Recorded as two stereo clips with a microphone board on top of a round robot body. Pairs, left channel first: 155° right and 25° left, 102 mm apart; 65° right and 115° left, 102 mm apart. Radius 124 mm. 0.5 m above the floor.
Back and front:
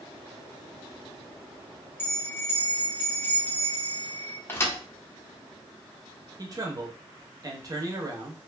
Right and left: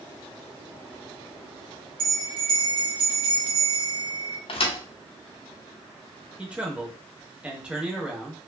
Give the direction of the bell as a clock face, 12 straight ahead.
7 o'clock.